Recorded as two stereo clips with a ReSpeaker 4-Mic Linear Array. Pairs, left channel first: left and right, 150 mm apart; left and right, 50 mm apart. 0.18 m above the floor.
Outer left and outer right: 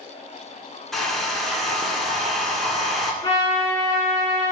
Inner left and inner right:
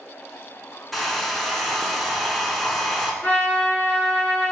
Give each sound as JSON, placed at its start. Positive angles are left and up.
{"t": 0.9, "sound": "a hair dryer", "side_deg": 0, "distance_m": 0.5}
{"t": 3.2, "sound": "a trumpet", "side_deg": 35, "distance_m": 1.5}